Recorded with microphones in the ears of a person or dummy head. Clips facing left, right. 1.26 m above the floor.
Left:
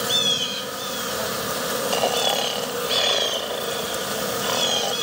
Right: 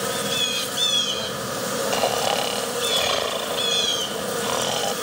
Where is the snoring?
5° left (ahead or behind).